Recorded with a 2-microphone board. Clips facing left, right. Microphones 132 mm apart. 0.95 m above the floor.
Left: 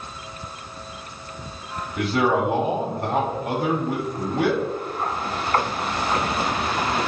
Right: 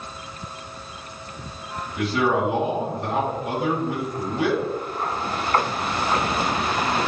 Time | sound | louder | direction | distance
2.0 | a man speaking | left 1 dB | 60° left (ahead or behind) | 2.5 m